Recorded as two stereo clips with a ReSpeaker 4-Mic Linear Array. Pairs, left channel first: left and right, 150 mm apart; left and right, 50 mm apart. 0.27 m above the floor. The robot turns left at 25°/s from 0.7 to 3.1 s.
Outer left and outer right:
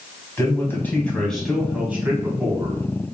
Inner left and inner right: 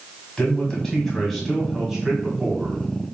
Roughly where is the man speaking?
Ahead.